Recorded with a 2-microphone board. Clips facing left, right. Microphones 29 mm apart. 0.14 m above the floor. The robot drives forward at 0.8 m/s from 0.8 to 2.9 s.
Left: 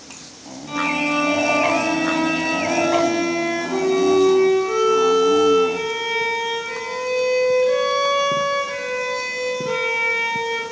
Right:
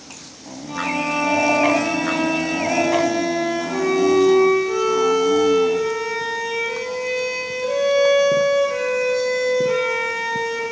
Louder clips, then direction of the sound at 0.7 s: Left 2 dB; 40° left (ahead or behind).